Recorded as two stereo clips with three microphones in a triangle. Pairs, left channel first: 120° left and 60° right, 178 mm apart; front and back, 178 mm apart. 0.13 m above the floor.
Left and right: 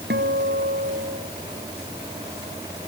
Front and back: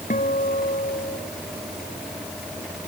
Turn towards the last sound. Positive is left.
turn(degrees=-45)